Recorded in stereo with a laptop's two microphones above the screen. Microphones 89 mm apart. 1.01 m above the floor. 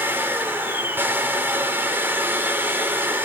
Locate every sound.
0.0 s a machine running: 25° right (ahead or behind), 4 m